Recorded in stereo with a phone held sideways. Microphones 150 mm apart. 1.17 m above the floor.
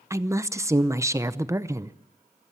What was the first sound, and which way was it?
A woman speaking, 20° right (ahead or behind).